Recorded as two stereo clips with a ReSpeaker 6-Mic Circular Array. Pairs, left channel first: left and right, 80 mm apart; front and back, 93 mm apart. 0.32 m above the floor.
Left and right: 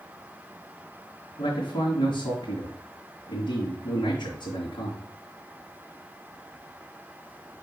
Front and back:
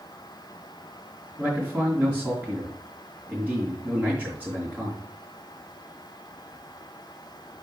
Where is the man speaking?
100° left, 3.5 m.